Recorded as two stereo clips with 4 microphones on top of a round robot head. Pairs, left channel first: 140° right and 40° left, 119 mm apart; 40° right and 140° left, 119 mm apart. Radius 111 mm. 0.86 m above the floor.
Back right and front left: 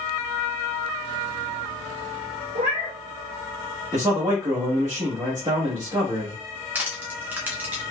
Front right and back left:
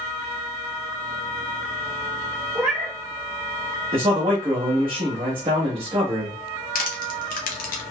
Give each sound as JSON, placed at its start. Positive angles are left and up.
{"t": 2.5, "sound": "a cat meowing", "azimuth_deg": 70, "distance_m": 1.3}
{"t": 3.9, "sound": "a man speaking", "azimuth_deg": 100, "distance_m": 1.4}
{"t": 6.8, "sound": "crushing", "azimuth_deg": -35, "distance_m": 0.6}